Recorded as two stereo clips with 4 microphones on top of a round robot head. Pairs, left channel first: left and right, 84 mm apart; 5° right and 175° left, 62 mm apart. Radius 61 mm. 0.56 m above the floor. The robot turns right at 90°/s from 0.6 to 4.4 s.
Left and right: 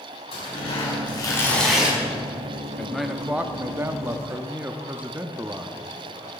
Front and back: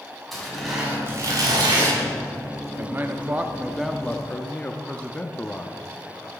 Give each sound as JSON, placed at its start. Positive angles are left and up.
{"t": 0.3, "sound": "tearing paper", "azimuth_deg": 80, "distance_m": 5.5}
{"t": 2.8, "sound": "a man speaking", "azimuth_deg": 160, "distance_m": 0.9}